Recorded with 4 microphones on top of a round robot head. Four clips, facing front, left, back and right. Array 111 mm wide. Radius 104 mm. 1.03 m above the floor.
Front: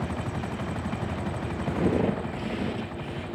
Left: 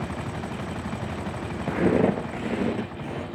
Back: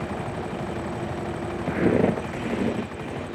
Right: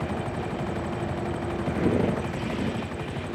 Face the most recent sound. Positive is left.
turn(degrees=140)